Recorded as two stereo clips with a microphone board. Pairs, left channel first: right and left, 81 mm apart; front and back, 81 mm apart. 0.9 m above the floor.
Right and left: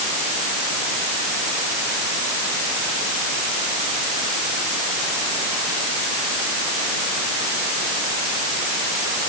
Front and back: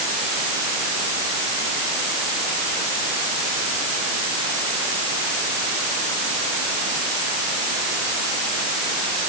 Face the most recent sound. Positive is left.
No sound to turn to.